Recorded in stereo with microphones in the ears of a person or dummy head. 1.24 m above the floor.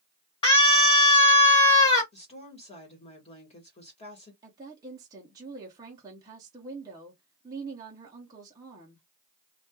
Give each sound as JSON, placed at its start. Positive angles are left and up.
{"t": 0.4, "sound": "a scream", "side_deg": 25, "distance_m": 1.2}
{"t": 2.1, "sound": "a woman speaking", "side_deg": 35, "distance_m": 1.2}
{"t": 4.4, "sound": "a woman speaking", "side_deg": -15, "distance_m": 0.7}